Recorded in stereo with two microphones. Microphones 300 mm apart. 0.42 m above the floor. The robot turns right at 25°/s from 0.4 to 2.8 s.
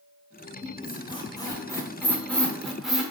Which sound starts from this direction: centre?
A squeak, at 0.6 s.